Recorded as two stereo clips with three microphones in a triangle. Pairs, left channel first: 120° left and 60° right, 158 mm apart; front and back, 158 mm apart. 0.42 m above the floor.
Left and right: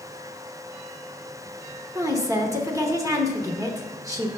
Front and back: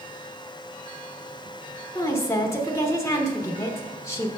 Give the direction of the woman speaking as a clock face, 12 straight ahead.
1 o'clock.